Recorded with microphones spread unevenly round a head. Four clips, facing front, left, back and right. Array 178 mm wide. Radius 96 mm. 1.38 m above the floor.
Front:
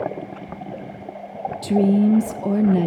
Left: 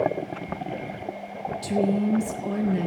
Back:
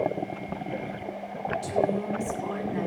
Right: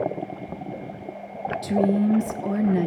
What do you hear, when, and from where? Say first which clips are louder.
1.6 s a woman speaking: right 2 dB, front 10 dB; 10° right, 1.3 m